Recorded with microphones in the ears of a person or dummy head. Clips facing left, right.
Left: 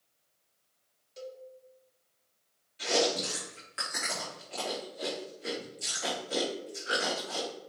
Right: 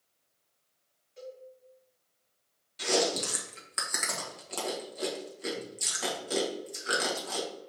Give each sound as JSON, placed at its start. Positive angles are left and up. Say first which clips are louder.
{"t": 1.2, "sound": "a cowbell", "louder": "left 1 dB", "side_deg": 50, "distance_m": 1.1}
{"t": 2.8, "sound": "chewing", "louder": "even", "side_deg": -60, "distance_m": 1.2}